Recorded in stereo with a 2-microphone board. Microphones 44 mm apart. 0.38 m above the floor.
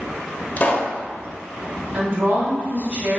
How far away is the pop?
About 0.8 m.